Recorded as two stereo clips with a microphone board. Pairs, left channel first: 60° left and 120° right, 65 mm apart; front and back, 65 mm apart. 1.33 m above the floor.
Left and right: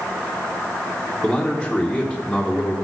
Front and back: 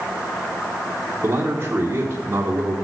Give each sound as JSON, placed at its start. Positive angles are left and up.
{"t": 1.2, "sound": "a man speaking", "azimuth_deg": 145, "distance_m": 1.4}